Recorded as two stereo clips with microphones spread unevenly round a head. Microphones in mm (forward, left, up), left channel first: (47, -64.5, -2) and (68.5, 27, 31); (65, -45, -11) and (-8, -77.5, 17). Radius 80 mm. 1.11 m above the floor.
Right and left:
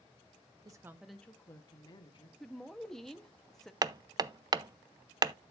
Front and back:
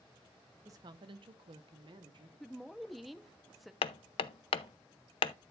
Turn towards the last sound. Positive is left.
turn(degrees=25)